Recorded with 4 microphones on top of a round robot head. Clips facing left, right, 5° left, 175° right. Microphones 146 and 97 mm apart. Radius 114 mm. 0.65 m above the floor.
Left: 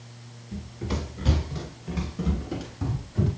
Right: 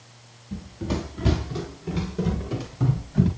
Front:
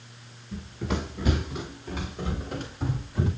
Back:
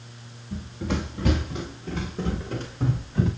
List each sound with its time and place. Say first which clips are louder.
0.5 s running footsteps: right 3 dB, back 2 dB; 140° right, 3 m; by 3.3 s 110° right, 5.5 m